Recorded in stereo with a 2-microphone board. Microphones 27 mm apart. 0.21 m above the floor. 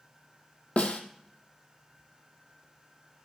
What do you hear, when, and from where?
0.8 s a snare drum: 55° left (ahead or behind), 1.2 m